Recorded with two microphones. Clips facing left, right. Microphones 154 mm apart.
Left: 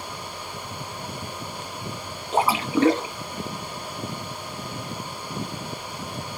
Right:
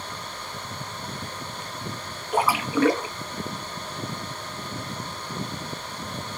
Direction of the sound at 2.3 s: 25° left (ahead or behind).